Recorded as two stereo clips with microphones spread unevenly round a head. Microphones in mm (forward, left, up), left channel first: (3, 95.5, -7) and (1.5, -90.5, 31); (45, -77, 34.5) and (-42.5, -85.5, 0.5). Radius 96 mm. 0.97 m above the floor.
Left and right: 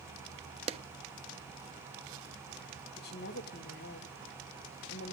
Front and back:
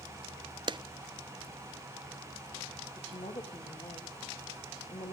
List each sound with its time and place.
0.7 s a clap: 155° right, 1.0 m
3.0 s a woman speaking: 55° left, 3 m